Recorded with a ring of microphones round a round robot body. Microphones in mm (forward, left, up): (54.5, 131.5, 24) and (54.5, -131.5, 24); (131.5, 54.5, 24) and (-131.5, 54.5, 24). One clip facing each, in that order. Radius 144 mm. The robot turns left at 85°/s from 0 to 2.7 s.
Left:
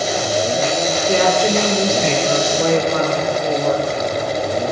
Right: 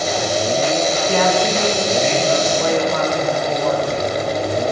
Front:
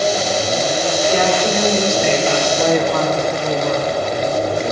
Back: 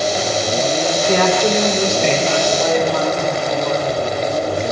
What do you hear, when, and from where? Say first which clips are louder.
1.1 s a woman speaking: left 3 dB, back 3 dB; 165° left, 1.6 m; by 3.9 s 30° left, 1.6 m